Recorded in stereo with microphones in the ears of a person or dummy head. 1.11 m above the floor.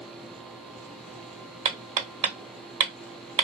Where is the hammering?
35° right (ahead or behind), 0.9 m.